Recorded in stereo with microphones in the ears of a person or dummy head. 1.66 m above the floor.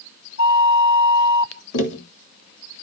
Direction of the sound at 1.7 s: 70° left (ahead or behind).